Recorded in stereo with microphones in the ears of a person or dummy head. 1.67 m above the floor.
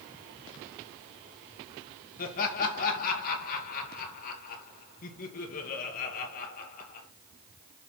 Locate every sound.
2.2 s laughter: 45° left (ahead or behind), 2.5 m